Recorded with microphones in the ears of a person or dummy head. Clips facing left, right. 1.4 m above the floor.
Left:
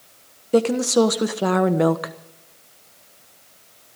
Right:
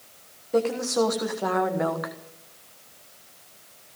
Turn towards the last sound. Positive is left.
turn(degrees=45)  # may be behind; listen again after turning